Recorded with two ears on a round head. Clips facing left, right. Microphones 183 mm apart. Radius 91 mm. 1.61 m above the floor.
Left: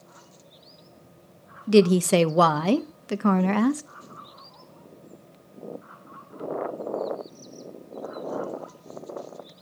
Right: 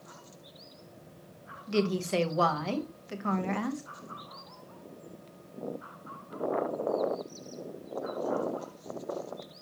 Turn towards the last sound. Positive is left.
turn(degrees=65)  # may be behind; listen again after turning